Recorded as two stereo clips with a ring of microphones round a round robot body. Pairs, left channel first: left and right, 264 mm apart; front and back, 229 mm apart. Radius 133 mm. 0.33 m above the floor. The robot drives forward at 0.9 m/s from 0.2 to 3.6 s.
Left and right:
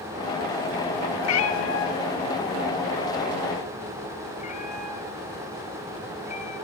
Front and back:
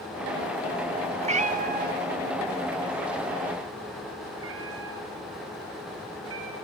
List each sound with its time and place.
1.2 s a cat meowing: 115° left, 1.5 m; by 6.6 s 155° left, 3 m